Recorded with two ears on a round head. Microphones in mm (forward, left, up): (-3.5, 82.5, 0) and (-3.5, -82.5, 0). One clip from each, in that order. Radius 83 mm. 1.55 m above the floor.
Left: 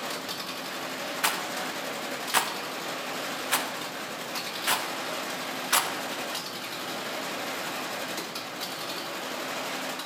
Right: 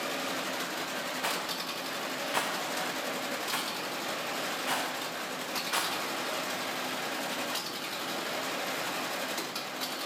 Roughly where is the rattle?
Left.